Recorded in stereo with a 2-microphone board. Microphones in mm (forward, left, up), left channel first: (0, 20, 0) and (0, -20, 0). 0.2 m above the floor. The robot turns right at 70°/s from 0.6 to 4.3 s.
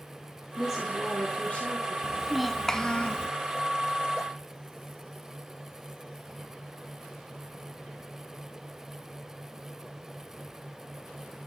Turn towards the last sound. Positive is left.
turn(degrees=130)